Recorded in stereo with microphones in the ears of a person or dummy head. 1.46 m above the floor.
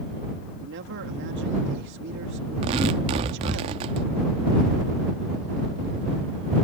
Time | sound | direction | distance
0.6 | a man speaking | 60° right (ahead or behind) | ?
2.6 | tearing paper | 20° right (ahead or behind) | ?